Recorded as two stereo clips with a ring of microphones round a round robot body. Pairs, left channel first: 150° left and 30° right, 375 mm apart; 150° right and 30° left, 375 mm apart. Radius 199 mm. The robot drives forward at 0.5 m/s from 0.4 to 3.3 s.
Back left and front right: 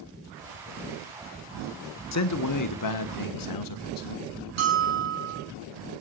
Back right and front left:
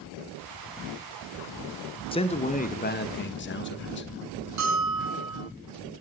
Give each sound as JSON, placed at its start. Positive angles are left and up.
{"t": 2.1, "sound": "a man speaking", "azimuth_deg": 140, "distance_m": 1.4}
{"t": 4.6, "sound": "a bell", "azimuth_deg": -15, "distance_m": 5.5}